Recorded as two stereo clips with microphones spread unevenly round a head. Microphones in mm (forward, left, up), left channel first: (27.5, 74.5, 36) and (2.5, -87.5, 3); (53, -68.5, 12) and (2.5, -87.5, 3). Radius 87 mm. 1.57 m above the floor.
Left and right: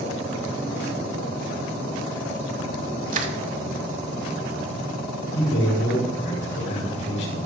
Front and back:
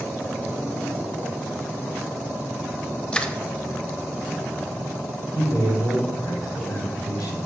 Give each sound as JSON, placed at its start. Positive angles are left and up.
{"t": 3.1, "sound": "crushing", "azimuth_deg": -55, "distance_m": 1.5}
{"t": 5.3, "sound": "a man speaking", "azimuth_deg": 110, "distance_m": 5.0}